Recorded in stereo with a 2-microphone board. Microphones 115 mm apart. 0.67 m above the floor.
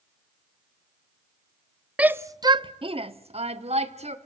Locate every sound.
2.0 s a shout: 10° right (ahead or behind), 0.6 m; by 4.2 s 65° right (ahead or behind), 1.7 m